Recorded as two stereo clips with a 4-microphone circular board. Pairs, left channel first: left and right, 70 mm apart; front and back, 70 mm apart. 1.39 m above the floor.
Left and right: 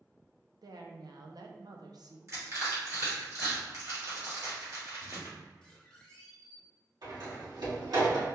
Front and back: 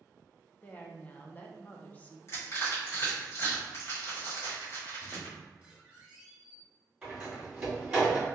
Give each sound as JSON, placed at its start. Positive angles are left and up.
{"t": 0.6, "sound": "a woman speaking", "azimuth_deg": -60, "distance_m": 0.5}
{"t": 2.3, "sound": "crushing", "azimuth_deg": -45, "distance_m": 1.7}
{"t": 5.0, "sound": "a squeak", "azimuth_deg": 140, "distance_m": 0.9}
{"t": 7.0, "sound": "a door slam", "azimuth_deg": -100, "distance_m": 1.9}